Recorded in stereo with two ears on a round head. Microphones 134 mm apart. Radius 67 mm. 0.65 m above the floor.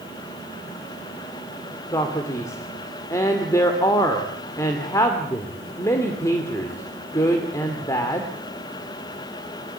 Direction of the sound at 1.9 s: 20° left (ahead or behind).